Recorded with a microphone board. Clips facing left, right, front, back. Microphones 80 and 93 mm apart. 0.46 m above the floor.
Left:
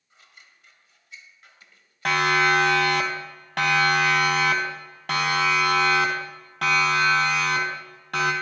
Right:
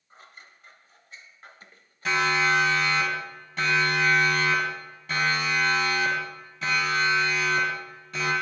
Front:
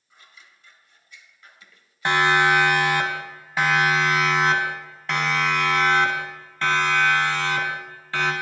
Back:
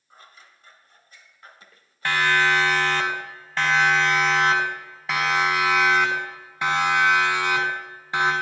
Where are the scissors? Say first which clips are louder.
Right 5 dB, back 3 dB; 135° right, 1.7 m.